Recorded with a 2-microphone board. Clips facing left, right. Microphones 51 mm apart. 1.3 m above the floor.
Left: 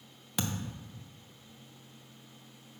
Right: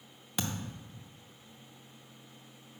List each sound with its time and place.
0.4 s a thud: centre (ahead or behind), 0.6 m